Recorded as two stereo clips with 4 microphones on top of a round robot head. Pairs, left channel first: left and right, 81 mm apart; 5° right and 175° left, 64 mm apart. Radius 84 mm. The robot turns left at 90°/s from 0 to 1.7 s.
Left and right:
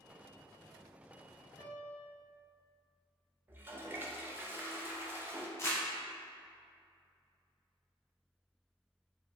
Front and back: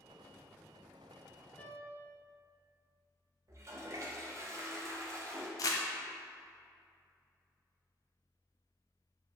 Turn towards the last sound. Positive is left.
turn(degrees=25)